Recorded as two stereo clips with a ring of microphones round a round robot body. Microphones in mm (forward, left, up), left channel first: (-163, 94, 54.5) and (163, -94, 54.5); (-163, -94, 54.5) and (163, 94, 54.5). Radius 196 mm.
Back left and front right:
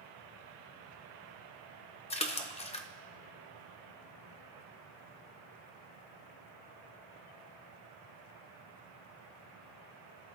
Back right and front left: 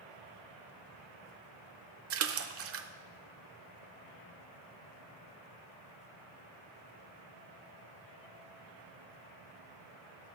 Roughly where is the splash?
Left.